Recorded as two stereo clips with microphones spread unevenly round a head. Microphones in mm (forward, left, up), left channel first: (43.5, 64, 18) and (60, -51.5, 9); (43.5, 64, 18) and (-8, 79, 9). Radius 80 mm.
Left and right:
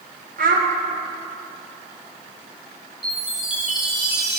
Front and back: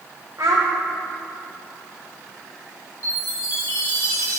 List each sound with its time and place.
0.4 s a child speaking: 125° right, 1.0 m
3.0 s a chime: 5° left, 2.5 m